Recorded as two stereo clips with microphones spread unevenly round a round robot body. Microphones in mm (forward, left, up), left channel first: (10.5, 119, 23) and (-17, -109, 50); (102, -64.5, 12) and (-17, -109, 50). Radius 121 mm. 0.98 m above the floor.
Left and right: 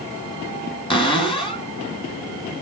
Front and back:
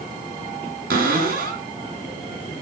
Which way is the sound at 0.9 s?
150° left.